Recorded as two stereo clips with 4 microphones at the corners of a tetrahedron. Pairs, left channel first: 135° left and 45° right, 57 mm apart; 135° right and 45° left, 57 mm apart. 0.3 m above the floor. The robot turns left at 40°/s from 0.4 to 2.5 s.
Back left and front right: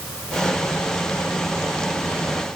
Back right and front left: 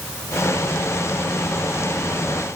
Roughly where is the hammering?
No hammering in this recording.